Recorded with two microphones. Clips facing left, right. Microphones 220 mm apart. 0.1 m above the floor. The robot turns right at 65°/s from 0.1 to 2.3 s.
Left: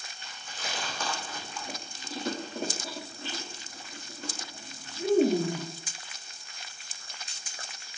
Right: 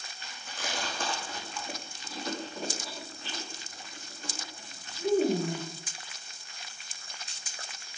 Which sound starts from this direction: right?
Chewing, at 0.2 s.